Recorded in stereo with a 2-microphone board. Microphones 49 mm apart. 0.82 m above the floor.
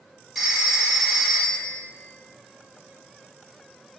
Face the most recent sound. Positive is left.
turn(degrees=0)  # may be behind; listen again after turning